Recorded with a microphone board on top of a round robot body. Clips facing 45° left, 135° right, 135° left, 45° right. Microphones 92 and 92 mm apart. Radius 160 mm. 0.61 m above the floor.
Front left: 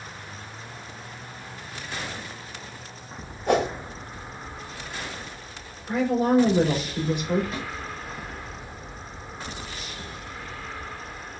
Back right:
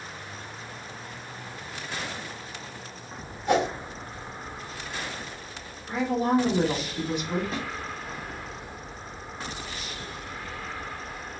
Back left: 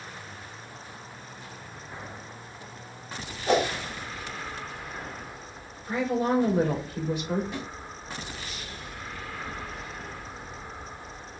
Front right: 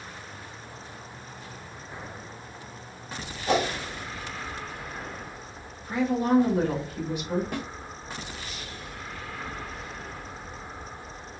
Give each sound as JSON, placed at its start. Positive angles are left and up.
{"t": 3.5, "sound": "a whoosh", "azimuth_deg": 70, "distance_m": 2.5}
{"t": 5.9, "sound": "a woman speaking", "azimuth_deg": 80, "distance_m": 3.0}
{"t": 7.5, "sound": "a snare drum", "azimuth_deg": -75, "distance_m": 1.1}